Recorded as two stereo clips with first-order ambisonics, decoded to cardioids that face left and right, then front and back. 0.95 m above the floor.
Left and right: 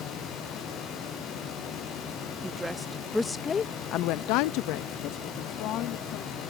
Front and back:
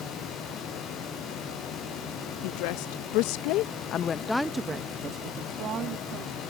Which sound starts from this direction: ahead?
A woman speaking, at 2.4 s.